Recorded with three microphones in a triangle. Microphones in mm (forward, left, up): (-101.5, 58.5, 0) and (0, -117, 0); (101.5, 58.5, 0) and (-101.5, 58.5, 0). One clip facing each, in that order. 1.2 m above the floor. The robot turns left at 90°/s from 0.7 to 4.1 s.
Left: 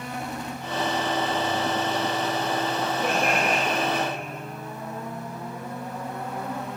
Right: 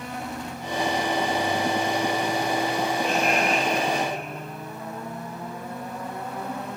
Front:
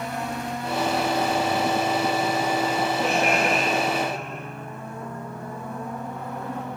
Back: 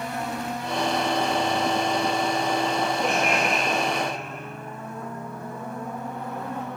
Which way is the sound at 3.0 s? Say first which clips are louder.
Left 1 dB, front 2 dB; 95° left.